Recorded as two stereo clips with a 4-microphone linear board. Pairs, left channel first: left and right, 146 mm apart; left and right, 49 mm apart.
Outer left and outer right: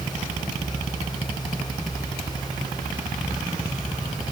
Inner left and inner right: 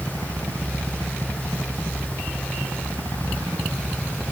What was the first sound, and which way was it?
Only background noise.